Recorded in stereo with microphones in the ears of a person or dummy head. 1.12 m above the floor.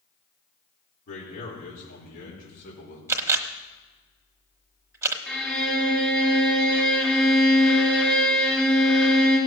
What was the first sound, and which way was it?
A man speaking, 50° left (ahead or behind).